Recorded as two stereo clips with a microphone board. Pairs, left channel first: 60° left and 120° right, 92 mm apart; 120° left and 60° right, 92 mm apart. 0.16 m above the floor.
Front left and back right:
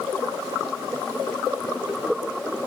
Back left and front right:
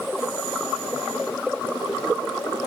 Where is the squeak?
No squeak in this recording.